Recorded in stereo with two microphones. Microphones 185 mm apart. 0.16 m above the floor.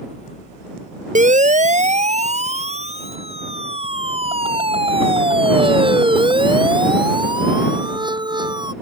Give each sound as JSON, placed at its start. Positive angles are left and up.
{"t": 1.1, "sound": "a siren", "side_deg": -45}